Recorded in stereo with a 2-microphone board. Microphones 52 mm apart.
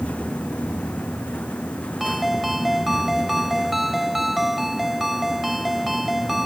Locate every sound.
2.0 s a ringtone: 5° right (ahead or behind)